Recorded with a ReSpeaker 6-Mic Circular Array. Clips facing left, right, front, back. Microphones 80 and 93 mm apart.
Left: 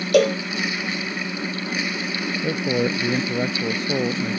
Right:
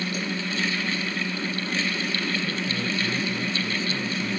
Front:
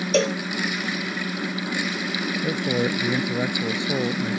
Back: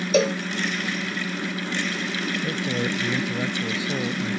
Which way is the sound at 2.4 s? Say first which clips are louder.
Left 7 dB, front 5 dB; 65° left.